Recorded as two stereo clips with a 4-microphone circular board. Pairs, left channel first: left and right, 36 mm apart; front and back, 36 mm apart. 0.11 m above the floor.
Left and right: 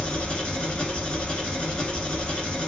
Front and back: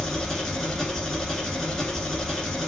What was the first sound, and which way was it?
An engine running, 65° left.